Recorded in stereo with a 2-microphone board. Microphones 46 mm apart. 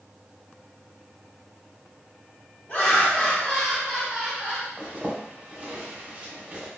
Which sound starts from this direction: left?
Laughter, at 2.7 s.